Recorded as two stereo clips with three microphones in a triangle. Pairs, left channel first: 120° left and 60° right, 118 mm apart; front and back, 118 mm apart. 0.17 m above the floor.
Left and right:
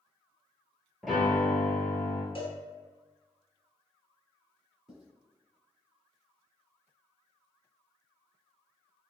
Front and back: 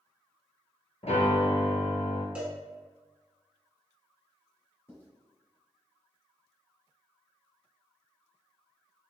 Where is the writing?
20° left, 1.6 m.